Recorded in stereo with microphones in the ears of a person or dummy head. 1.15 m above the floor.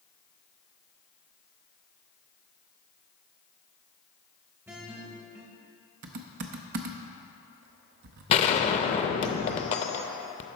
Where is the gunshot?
35° left (ahead or behind), 0.6 m.